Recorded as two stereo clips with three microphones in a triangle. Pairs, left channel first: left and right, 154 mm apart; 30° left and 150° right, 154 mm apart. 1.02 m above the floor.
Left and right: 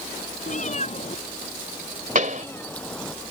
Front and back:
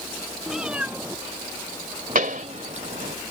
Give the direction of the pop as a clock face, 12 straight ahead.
4 o'clock.